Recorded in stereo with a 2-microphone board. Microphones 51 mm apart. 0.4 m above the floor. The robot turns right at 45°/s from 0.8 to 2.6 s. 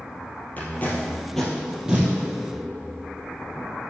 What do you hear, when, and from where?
0.6 s tape being pulled: 35° left (ahead or behind), 2.5 m; by 2.1 s 25° right (ahead or behind), 2.5 m